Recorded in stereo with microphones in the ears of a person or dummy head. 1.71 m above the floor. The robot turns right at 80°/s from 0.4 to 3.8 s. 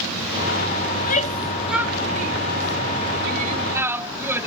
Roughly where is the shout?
Left.